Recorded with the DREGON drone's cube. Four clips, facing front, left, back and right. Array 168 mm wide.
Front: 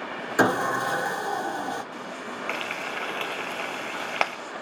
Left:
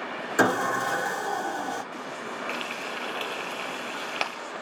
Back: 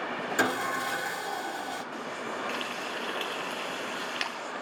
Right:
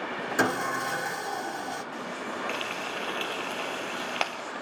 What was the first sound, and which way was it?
Sawing, 35° left.